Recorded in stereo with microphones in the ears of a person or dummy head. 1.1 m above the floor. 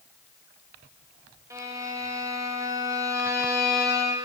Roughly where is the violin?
Centre.